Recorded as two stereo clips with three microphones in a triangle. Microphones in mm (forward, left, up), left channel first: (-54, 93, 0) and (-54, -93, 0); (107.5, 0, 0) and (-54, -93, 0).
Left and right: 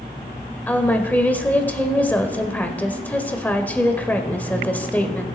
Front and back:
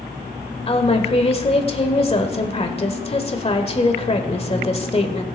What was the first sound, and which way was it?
A woman speaking, 15° left.